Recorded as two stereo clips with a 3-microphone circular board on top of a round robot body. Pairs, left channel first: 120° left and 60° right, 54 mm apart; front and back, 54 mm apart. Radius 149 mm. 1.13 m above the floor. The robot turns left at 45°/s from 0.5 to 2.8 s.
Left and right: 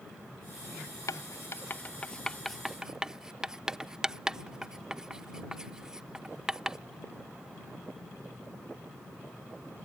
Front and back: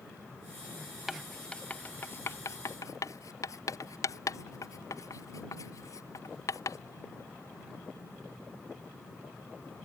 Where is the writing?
95° left; by 6.8 s 20° left.